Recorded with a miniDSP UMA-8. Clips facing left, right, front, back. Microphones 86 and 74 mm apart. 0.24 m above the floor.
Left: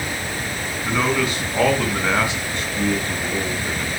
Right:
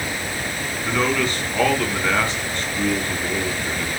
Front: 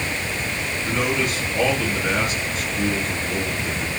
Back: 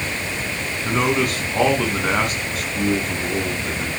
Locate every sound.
0.8 s a man speaking: 165° left, 3 m